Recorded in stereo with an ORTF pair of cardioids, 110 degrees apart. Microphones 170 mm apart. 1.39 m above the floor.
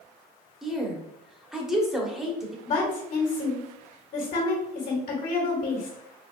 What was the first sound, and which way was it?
A woman speaking, 5° right.